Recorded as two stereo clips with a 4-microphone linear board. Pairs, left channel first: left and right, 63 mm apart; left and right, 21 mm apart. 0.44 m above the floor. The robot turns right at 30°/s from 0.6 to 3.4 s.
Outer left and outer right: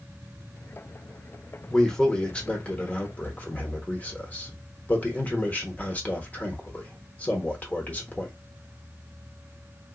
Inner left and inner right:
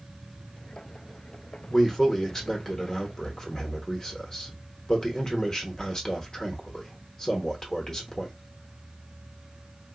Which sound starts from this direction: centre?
A man speaking, at 1.7 s.